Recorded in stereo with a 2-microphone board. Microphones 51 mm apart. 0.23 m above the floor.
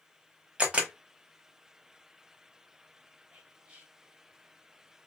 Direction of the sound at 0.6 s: 20° right (ahead or behind).